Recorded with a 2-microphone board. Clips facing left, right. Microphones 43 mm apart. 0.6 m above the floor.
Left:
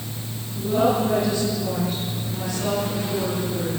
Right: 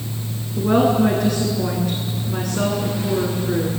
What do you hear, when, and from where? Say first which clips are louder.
0.6 s a woman speaking: right 4 dB; 80° right, 7.5 m